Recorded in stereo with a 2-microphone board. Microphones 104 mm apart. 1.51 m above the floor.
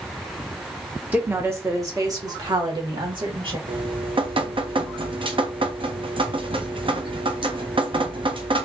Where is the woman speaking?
15° right (ahead or behind), 1.2 m; by 3.6 s 50° right (ahead or behind), 2 m.